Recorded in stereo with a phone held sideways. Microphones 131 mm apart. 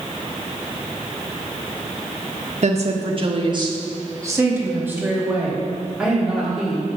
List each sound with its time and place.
2.6 s a woman speaking: 60° right (ahead or behind), 1.3 m; by 7.0 s centre (ahead or behind), 3.5 m